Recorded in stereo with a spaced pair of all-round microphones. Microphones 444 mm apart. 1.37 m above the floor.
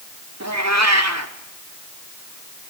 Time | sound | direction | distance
0.4 | a cat meowing | 35° right (ahead or behind) | 1.9 m